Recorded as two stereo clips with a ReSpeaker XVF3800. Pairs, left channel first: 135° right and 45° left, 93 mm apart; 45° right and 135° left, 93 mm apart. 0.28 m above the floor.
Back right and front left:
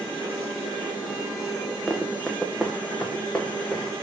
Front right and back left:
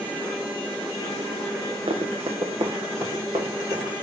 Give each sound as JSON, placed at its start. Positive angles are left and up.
{"t": 1.9, "sound": "running footsteps", "azimuth_deg": 140, "distance_m": 1.4}